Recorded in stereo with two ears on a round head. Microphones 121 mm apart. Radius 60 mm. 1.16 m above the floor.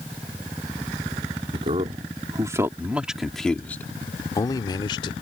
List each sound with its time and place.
1.5 s a man speaking: 45° right (ahead or behind); by 5.1 s 40° left (ahead or behind)